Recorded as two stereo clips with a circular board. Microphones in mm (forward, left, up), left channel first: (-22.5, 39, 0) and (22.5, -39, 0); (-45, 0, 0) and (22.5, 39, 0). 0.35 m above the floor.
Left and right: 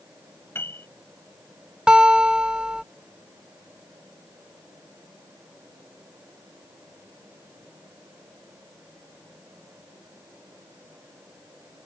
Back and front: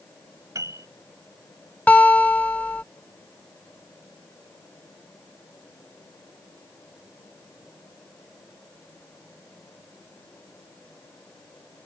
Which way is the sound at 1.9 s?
120° right.